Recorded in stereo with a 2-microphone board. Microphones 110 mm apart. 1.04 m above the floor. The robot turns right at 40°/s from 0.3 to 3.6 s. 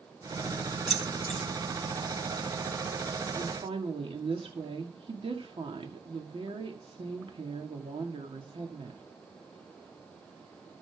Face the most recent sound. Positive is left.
turn(degrees=-55)  # may be behind; listen again after turning